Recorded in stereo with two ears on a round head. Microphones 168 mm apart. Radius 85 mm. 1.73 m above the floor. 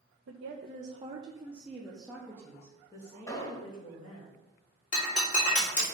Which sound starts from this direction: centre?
An explosion, at 3.3 s.